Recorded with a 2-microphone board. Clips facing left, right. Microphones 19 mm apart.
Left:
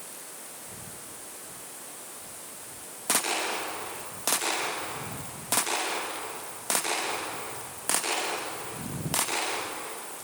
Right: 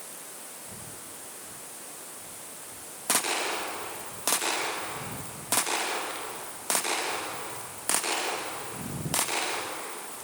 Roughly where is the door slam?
No door slam in this recording.